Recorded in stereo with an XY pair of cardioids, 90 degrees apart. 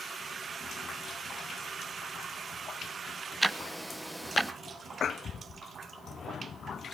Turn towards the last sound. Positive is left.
turn(degrees=-10)